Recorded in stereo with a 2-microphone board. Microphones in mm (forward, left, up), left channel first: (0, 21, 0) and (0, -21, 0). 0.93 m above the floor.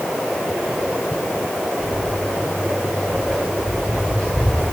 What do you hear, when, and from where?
1.8 s footsteps: 10° left (ahead or behind), 7 m; by 4.6 s 25° left (ahead or behind), 6 m